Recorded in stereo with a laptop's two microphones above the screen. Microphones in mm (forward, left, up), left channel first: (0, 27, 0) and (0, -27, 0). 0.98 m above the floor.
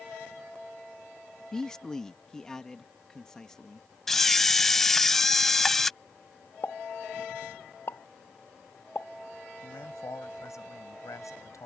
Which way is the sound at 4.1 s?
10° left (ahead or behind).